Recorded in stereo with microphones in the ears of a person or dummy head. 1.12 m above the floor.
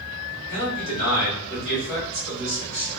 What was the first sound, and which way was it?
A man speaking, 40° right (ahead or behind).